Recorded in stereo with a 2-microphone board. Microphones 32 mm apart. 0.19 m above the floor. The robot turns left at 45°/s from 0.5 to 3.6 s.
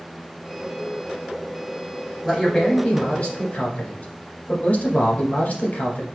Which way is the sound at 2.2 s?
155° left.